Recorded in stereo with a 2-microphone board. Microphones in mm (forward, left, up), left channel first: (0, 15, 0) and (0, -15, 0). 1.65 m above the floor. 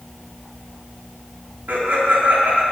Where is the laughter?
85° right, 4.5 m.